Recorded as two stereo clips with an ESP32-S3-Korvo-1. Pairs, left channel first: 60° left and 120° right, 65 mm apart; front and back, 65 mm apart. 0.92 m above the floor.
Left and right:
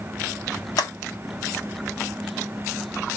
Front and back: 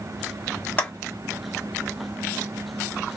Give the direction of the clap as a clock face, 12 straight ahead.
10 o'clock.